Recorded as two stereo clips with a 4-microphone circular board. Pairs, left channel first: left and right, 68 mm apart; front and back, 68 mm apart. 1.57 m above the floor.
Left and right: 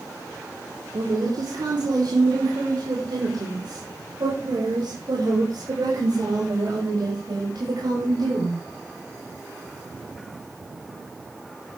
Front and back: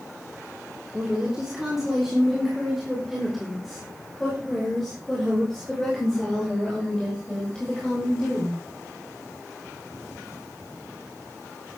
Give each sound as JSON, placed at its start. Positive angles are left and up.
{"t": 0.9, "sound": "a woman speaking", "azimuth_deg": -105, "distance_m": 3.5}